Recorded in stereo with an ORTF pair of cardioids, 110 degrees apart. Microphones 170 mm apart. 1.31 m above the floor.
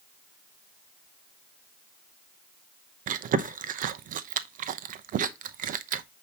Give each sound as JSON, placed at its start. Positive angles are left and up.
{"t": 3.1, "sound": "chewing", "azimuth_deg": -55, "distance_m": 0.8}